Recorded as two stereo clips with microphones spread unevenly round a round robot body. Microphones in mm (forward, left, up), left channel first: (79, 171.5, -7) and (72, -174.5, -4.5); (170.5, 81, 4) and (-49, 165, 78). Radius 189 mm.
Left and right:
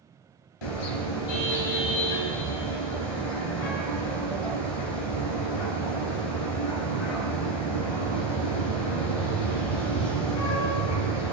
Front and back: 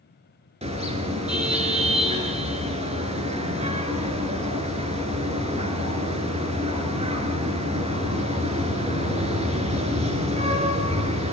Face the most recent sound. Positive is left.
turn(degrees=95)